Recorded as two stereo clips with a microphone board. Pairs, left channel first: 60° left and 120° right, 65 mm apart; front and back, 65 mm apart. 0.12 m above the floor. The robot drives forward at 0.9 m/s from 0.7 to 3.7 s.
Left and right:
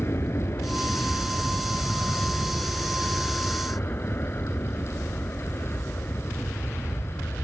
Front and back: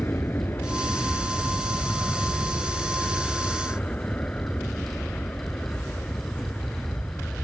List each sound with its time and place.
0.0 s an aircraft: 35° left; by 7.4 s 55° left